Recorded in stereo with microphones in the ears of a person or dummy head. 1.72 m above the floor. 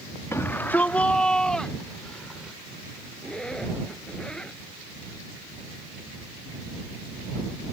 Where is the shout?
10° left (ahead or behind); by 2.6 s centre (ahead or behind).